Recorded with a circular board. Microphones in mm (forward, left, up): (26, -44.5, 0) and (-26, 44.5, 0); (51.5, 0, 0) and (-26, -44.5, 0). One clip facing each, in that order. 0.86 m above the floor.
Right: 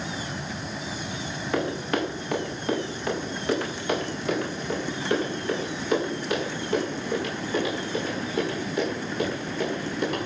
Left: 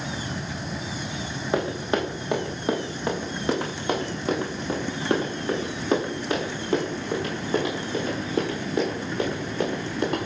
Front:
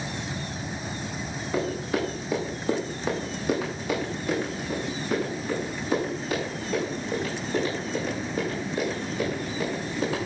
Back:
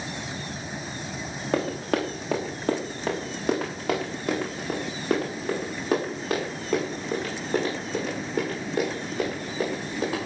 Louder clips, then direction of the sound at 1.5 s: Left 2 dB, back 2 dB; 170° right.